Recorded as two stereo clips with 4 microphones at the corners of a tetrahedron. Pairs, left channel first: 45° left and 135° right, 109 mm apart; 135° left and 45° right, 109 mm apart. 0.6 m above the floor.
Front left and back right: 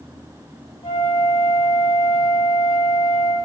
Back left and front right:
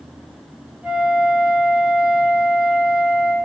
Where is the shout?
I don't hear a shout.